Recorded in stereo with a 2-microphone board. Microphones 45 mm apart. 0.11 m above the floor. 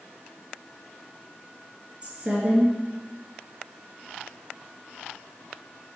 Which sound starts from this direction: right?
A woman speaking, at 2.0 s.